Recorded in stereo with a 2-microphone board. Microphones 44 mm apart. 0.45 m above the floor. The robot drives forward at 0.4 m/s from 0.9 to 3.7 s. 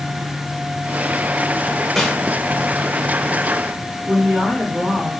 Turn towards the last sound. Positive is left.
turn(degrees=-40)  # may be behind; listen again after turning